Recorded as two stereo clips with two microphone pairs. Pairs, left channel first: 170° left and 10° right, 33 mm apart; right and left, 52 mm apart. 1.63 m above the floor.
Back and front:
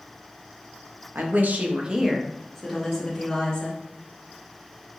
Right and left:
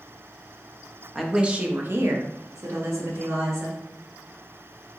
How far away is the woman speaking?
About 0.6 m.